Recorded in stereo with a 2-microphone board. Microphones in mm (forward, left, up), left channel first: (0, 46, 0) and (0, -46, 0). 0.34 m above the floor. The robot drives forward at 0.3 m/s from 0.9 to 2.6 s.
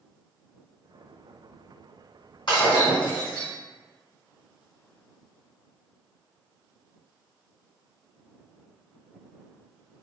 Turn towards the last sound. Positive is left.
turn(degrees=60)  # may be behind; listen again after turning